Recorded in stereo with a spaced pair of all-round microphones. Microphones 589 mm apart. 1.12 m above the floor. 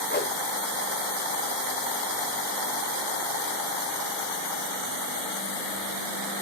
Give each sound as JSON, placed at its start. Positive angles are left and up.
{"t": 0.1, "sound": "a whoosh", "side_deg": 15, "distance_m": 1.3}